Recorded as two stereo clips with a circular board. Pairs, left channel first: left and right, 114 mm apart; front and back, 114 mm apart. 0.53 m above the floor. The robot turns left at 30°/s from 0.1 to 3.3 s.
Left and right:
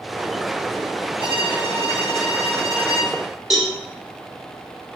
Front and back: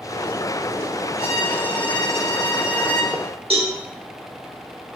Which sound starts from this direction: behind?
A cowbell, at 3.5 s.